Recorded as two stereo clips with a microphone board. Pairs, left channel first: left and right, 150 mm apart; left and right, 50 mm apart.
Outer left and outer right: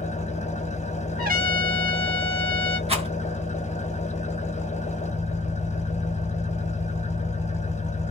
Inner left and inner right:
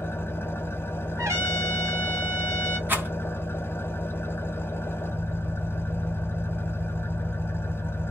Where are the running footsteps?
I don't hear running footsteps.